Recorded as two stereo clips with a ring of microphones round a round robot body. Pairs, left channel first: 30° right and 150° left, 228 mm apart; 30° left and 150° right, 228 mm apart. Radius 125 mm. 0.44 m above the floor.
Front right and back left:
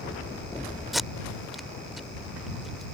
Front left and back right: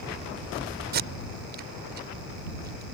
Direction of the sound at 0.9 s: 120° right.